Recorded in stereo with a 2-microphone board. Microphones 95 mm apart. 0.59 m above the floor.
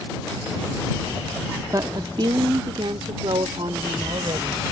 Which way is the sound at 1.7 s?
35° right (ahead or behind).